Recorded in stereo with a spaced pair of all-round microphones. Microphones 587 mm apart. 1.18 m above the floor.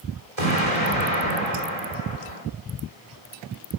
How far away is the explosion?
About 3.5 m.